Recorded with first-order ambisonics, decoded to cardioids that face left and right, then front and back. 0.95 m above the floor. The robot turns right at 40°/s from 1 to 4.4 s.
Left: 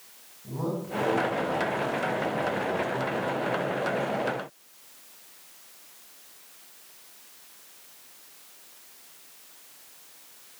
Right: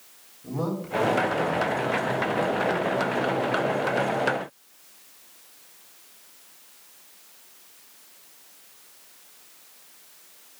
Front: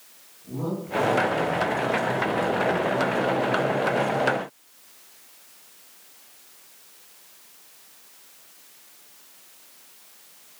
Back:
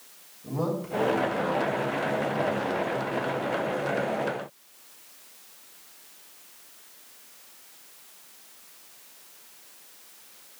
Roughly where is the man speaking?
Behind right.